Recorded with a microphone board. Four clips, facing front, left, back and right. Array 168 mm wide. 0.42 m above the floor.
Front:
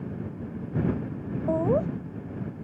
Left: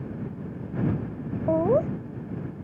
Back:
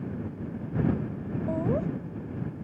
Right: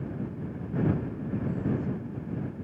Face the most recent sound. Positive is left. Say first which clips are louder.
# left 13 dB, front 5 dB
turn(degrees=65)